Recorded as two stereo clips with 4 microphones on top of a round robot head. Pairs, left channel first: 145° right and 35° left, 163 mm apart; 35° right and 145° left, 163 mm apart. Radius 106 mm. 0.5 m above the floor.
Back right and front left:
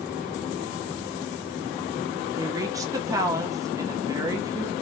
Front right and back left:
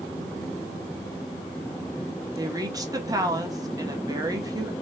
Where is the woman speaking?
90° left, 1.4 m.